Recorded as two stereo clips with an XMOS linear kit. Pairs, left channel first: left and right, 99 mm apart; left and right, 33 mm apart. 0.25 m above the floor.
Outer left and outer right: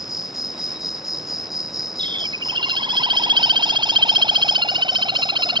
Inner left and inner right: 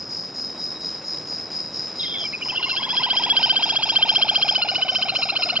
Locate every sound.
0.0 s an insect: 5° right (ahead or behind)
2.0 s a bird: 50° right (ahead or behind)